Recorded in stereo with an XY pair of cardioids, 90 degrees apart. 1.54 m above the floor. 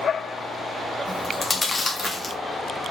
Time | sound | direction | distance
1.1 | chewing | 20° left | 2 m